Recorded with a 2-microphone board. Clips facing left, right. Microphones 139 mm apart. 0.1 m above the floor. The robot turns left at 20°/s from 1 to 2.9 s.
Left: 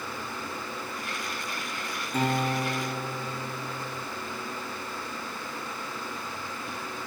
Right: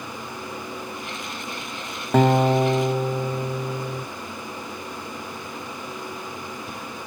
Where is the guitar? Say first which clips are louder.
Right 10 dB; 75° right (ahead or behind), 0.6 m.